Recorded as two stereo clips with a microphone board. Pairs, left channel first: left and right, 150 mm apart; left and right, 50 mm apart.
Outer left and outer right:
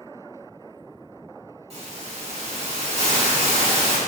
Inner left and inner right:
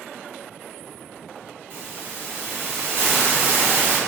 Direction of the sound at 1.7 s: 45° right (ahead or behind).